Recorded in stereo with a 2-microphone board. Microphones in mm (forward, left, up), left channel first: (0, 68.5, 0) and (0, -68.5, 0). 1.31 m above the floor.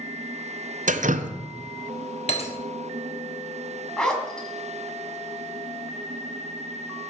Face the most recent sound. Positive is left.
turn(degrees=5)  # may be behind; listen again after turning